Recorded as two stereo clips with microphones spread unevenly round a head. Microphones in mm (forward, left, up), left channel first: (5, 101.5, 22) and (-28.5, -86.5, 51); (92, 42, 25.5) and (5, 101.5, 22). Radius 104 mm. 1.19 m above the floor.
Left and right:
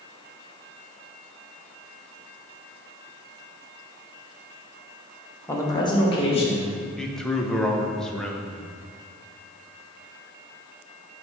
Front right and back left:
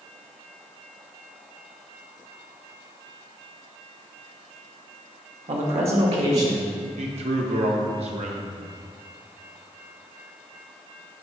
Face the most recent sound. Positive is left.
turn(degrees=165)